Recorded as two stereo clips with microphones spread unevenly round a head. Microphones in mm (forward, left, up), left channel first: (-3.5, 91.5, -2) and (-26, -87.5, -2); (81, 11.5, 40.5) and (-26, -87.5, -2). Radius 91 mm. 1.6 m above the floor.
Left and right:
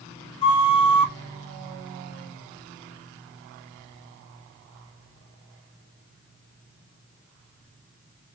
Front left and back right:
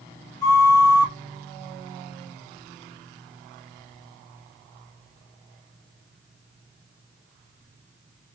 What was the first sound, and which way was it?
A flute, 45° left.